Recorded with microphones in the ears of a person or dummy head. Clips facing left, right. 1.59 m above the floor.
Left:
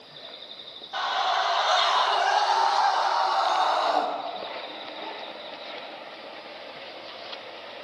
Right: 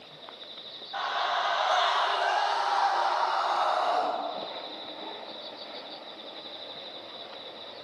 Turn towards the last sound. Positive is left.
turn(degrees=55)  # may be behind; listen again after turning